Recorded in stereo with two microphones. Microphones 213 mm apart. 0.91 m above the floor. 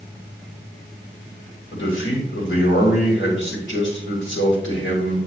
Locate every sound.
1.7 s a man speaking: 65° left (ahead or behind), 3.5 m